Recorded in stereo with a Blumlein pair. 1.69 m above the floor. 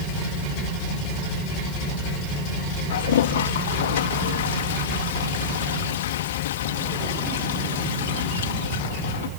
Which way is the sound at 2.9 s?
60° left.